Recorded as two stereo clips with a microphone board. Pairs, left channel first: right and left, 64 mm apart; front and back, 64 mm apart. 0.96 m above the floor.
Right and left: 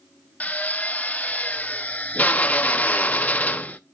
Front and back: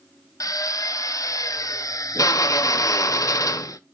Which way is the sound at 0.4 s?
25° right.